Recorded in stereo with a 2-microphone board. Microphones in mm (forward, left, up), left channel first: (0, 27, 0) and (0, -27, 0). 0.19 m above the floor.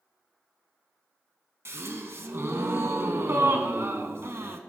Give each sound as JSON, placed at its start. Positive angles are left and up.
{"t": 1.6, "sound": "a gasp", "side_deg": -50, "distance_m": 0.6}